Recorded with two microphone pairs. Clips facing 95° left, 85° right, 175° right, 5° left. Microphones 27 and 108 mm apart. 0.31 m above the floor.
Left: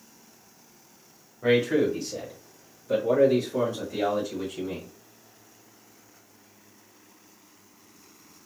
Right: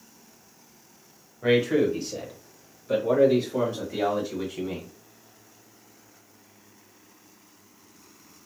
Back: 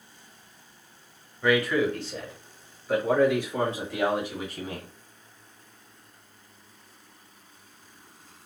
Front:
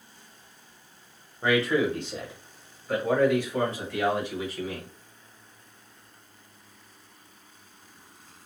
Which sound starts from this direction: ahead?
A man speaking, at 1.4 s.